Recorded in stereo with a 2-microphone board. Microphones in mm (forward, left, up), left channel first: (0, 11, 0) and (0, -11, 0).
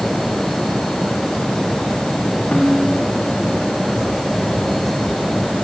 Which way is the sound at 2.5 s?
60° left (ahead or behind).